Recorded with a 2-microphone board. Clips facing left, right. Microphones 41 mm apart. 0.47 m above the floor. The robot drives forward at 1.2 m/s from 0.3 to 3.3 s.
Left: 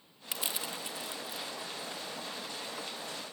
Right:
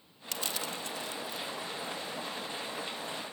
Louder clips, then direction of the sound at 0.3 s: Right 1 dB; 15° left (ahead or behind).